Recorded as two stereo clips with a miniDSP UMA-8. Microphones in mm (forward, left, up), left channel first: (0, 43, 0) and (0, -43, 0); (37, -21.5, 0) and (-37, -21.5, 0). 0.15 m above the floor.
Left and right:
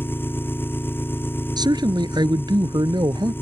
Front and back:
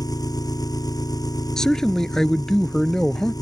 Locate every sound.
0.0 s an engine running: 25° left
1.6 s a man speaking: 80° right